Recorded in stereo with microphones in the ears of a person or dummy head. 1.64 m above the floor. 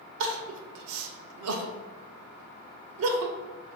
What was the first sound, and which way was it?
Crying, 85° right.